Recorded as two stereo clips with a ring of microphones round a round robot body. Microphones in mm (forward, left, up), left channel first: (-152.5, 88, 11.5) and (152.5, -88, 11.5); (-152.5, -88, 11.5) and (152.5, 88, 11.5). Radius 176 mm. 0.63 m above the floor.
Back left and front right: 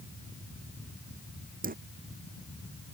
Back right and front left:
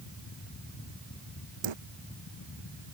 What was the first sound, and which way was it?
A dropped coin, 35° left.